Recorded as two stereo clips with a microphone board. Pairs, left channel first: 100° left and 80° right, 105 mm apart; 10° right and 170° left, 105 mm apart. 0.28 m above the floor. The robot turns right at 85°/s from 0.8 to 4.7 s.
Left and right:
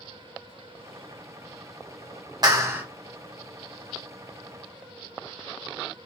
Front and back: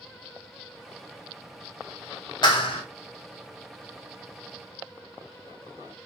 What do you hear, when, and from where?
2.4 s a clap: 45° right, 1.0 m; by 2.8 s 10° right, 1.0 m